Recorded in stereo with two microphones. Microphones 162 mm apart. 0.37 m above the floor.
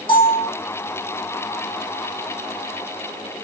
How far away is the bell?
About 8.5 m.